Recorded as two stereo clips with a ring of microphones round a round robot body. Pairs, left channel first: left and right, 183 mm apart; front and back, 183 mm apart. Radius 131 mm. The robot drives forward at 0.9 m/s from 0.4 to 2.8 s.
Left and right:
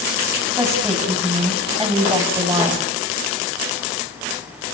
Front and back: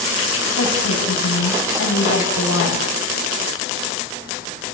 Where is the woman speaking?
15° right, 6 m; by 2.9 s 25° right, 4 m.